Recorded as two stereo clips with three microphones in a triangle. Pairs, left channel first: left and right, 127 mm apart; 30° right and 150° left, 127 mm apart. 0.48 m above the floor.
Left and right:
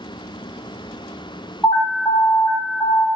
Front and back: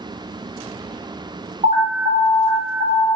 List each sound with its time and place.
1.6 s an alarm: 165° left, 1.8 m